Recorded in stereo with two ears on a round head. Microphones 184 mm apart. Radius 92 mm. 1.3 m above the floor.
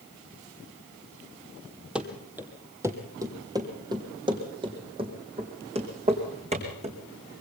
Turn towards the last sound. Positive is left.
turn(degrees=-30)  # may be behind; listen again after turning